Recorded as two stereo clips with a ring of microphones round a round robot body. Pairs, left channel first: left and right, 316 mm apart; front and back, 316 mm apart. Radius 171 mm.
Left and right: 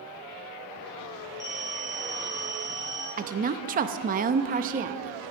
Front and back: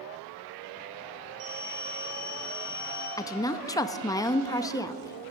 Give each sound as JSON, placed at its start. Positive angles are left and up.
{"t": 1.4, "sound": "a phone ringing", "azimuth_deg": 145, "distance_m": 7.5}
{"t": 3.2, "sound": "a woman speaking", "azimuth_deg": -65, "distance_m": 0.6}